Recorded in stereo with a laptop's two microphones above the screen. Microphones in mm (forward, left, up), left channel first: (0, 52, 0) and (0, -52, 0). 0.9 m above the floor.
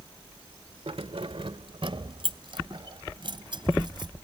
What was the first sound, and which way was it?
Keys jangling, 70° right (ahead or behind).